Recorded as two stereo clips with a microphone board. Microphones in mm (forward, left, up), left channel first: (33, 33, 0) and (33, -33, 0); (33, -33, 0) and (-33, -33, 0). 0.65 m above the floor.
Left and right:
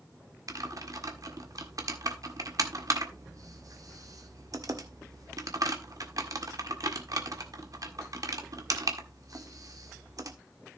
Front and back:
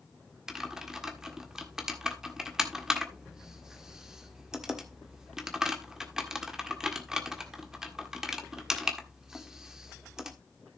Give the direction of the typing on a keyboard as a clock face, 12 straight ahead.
3 o'clock.